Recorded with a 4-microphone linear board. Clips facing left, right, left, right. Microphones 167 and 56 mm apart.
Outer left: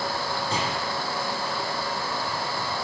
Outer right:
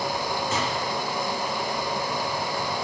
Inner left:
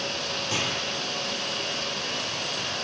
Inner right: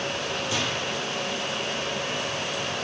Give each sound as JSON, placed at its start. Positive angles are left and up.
{"t": 0.5, "sound": "a gunshot", "side_deg": 30, "distance_m": 5.5}